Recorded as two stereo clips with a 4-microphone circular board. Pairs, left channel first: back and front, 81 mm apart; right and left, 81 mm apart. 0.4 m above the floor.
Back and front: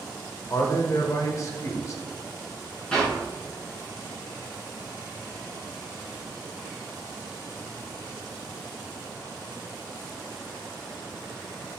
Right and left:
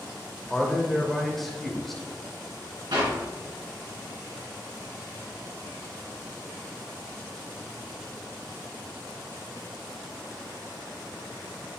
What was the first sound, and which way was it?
A man speaking, 175° right.